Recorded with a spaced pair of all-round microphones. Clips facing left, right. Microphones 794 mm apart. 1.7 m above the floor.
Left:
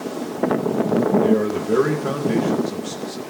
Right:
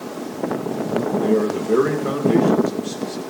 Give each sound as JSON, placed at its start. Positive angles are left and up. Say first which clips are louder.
{"t": 1.2, "sound": "a man speaking", "louder": "even", "side_deg": 25, "distance_m": 2.5}